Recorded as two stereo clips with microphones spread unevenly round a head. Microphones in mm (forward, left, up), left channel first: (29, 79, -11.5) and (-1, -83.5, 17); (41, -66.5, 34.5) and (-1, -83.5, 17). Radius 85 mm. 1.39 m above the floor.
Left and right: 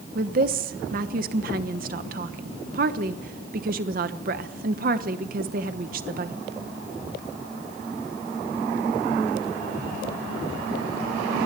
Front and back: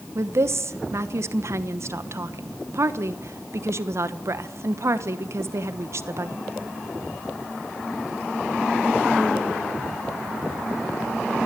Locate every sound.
0.1 s a woman speaking: 145° right, 1.1 m